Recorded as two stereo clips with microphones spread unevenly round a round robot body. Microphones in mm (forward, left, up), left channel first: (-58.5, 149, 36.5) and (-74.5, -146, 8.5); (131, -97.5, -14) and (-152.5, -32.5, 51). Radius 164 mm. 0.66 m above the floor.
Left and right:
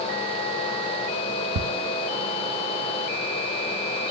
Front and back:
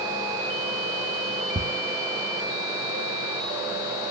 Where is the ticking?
115° right, 0.6 m.